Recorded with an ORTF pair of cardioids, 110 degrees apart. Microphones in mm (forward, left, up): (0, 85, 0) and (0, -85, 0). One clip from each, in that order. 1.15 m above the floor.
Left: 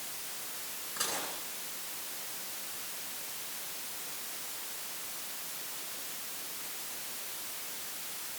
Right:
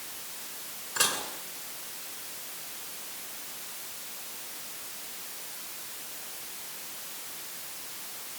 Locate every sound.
1.0 s dishes clattering: 65° right, 9.5 m